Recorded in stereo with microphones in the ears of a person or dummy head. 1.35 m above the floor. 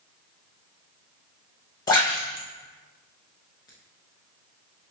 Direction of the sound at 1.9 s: 15° left (ahead or behind).